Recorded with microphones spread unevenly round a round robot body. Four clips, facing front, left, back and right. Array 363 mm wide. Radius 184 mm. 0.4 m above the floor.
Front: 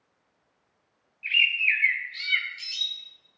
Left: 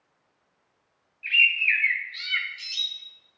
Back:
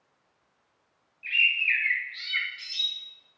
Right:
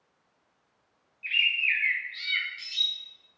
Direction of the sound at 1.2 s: 25° left.